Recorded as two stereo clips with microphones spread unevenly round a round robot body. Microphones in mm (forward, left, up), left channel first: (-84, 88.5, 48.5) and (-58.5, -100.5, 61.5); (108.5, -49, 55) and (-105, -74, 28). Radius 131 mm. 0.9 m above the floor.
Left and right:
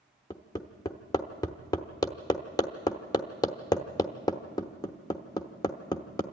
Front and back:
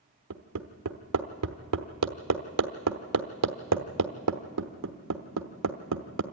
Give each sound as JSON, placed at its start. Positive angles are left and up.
{"t": 0.3, "sound": "hammering", "azimuth_deg": 170, "distance_m": 1.0}